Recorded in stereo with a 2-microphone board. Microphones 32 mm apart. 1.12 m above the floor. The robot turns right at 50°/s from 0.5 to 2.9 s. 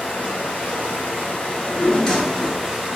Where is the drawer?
125° left, 0.9 m; by 2.7 s 175° right, 0.9 m.